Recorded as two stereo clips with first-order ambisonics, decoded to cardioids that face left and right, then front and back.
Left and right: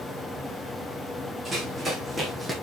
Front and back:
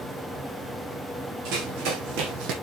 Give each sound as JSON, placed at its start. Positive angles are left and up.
{"t": 1.4, "sound": "running footsteps", "azimuth_deg": -165, "distance_m": 4.0}